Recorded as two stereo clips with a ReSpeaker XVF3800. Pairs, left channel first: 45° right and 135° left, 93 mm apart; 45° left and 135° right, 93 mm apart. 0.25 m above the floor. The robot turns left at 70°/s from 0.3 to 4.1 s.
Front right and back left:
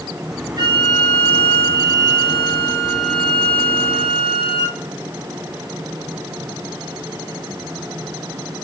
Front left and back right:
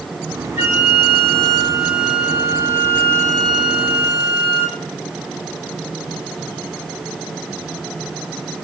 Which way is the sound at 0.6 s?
160° left.